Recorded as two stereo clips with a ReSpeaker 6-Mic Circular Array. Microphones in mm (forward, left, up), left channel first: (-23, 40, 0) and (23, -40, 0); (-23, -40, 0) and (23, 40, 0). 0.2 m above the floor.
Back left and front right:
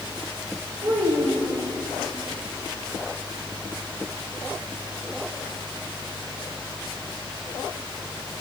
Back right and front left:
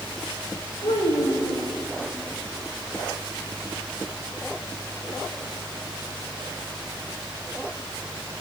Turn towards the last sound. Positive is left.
turn(degrees=-95)